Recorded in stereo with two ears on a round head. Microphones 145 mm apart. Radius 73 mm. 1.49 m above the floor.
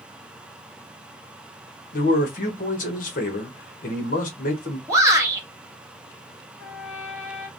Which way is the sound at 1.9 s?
50° left (ahead or behind).